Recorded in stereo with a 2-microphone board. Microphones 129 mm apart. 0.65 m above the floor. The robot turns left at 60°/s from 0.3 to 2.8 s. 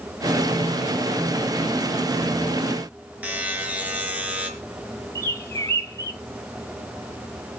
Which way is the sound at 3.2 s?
10° right (ahead or behind).